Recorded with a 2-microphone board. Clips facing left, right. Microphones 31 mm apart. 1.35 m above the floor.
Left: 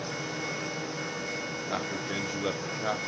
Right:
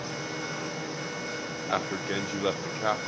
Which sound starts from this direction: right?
A man speaking, at 1.7 s.